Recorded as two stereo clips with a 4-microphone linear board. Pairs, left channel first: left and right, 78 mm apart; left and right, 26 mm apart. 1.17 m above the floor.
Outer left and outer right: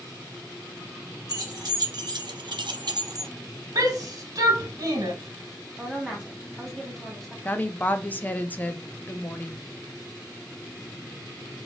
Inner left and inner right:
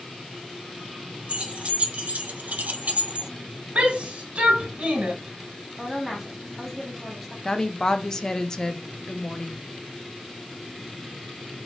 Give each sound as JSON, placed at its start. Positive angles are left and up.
{"t": 1.3, "sound": "keys jangling", "side_deg": -50, "distance_m": 1.1}
{"t": 3.8, "sound": "a shout", "side_deg": -55, "distance_m": 1.3}
{"t": 5.8, "sound": "a woman speaking", "side_deg": 0, "distance_m": 1.5}
{"t": 7.5, "sound": "a woman speaking", "side_deg": 20, "distance_m": 0.5}